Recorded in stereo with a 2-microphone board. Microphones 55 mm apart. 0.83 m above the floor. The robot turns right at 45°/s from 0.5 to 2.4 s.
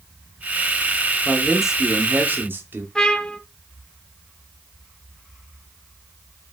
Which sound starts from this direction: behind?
A man speaking, at 1.2 s.